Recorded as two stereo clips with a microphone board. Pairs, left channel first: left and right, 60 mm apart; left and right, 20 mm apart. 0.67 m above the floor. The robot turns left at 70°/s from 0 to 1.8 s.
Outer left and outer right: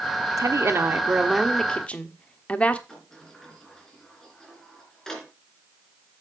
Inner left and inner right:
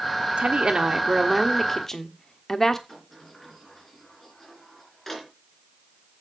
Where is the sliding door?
10° left (ahead or behind), 3 m.